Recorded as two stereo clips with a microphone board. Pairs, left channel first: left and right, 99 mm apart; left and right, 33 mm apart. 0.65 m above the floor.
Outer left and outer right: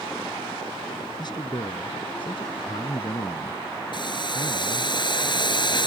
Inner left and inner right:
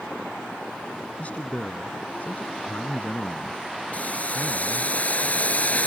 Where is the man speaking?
45° left (ahead or behind); by 4.9 s 75° left (ahead or behind).